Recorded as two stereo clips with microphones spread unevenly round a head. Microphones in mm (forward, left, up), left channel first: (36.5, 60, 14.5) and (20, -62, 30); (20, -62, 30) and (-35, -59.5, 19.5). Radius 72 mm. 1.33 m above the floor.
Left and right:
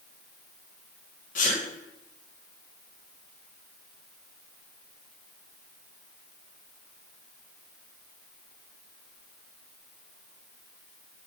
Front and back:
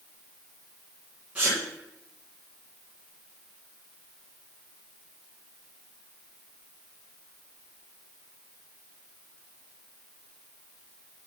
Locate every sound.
1.4 s a sneeze: 100° left, 1.3 m